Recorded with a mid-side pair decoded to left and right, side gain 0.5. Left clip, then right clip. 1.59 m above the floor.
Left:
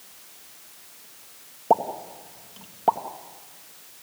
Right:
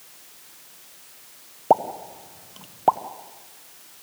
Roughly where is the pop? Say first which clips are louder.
Right 2 dB; ahead.